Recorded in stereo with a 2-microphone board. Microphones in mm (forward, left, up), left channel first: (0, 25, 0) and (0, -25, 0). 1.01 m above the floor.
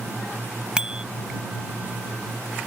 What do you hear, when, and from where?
0.8 s a bicycle bell: 20° right (ahead or behind)